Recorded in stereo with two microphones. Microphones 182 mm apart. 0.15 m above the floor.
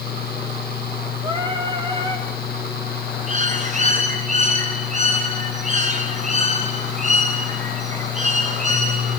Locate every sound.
1.2 s singing: 25° right (ahead or behind), 2.5 m
3.3 s a bird: 40° right (ahead or behind), 5 m